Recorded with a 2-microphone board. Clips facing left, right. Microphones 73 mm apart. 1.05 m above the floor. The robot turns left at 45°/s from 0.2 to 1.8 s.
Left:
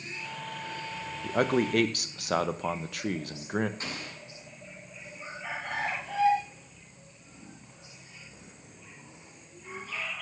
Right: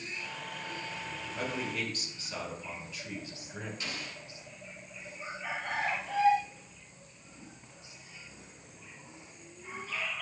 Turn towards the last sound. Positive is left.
turn(degrees=40)  # may be behind; listen again after turning